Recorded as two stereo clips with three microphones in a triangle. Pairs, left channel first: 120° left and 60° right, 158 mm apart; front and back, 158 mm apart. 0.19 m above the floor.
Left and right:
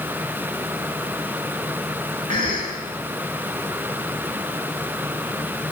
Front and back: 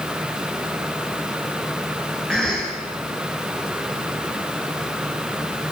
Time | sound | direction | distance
2.3 | a cough | 85° right | 2.5 m